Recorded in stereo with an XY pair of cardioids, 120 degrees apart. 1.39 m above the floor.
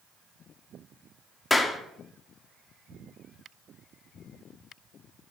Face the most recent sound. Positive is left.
turn(degrees=10)